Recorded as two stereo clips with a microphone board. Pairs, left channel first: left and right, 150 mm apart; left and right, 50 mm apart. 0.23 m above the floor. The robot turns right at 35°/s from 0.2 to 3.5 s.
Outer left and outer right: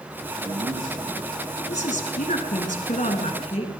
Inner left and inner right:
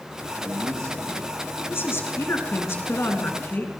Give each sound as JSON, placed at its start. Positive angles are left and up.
{"t": 0.3, "sound": "a man speaking", "azimuth_deg": -90, "distance_m": 9.0}
{"t": 1.7, "sound": "a woman speaking", "azimuth_deg": 65, "distance_m": 3.0}